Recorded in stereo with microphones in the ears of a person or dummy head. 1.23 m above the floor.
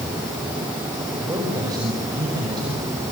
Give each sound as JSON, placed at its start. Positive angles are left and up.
{"t": 1.2, "sound": "a man speaking", "side_deg": -20, "distance_m": 6.0}